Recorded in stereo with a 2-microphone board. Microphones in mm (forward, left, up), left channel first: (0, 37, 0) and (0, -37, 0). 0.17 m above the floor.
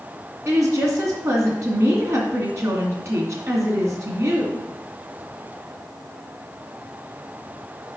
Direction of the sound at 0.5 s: 40° right (ahead or behind).